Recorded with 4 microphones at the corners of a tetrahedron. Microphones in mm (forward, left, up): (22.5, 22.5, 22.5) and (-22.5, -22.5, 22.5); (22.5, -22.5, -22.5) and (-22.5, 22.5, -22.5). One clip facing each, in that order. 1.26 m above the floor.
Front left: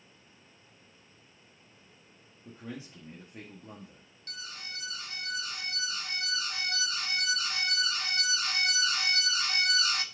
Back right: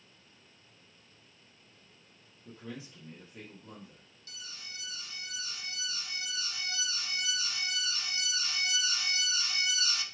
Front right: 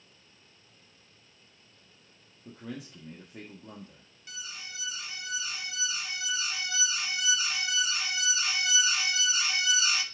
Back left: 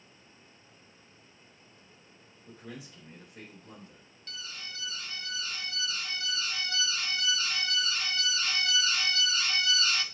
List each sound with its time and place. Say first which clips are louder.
2.5 s a man speaking: front left 2 dB, front right 4 dB; 15° right, 1.8 m
4.3 s an alarm: front left 5 dB, even; 35° left, 0.7 m